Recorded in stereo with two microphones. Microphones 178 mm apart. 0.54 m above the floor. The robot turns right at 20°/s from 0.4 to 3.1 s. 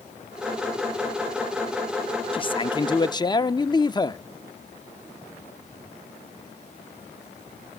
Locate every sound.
2.3 s a man speaking: 30° left (ahead or behind), 0.7 m; by 4.2 s 25° left (ahead or behind), 0.7 m